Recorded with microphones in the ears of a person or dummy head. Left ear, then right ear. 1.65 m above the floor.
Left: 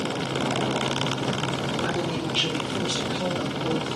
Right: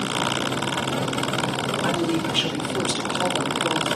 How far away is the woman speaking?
About 5.5 m.